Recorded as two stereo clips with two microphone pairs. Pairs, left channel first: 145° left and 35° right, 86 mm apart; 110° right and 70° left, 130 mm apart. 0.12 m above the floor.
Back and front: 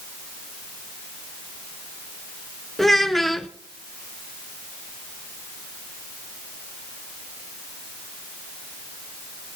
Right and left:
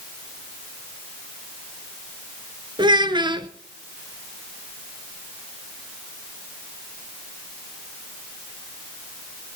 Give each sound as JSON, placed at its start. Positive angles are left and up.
{"t": 2.8, "sound": "a child speaking", "azimuth_deg": 65, "distance_m": 0.8}